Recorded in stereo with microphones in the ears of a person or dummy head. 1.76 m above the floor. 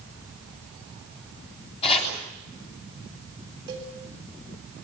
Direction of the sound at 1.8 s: 30° left (ahead or behind).